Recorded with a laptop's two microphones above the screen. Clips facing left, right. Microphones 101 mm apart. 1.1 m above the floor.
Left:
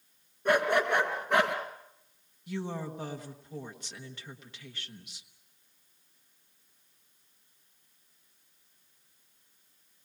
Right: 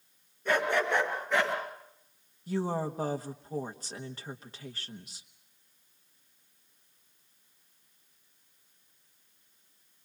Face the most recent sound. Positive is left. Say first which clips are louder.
# right 5 dB
turn(degrees=-35)  # may be behind; listen again after turning